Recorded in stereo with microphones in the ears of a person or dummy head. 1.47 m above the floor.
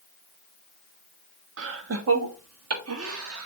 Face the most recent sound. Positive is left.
turn(degrees=-85)